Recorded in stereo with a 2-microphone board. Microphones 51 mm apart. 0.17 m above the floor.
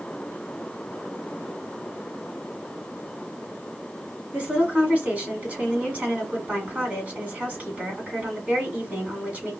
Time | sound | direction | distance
4.3 | a woman speaking | 30° right (ahead or behind) | 1.8 m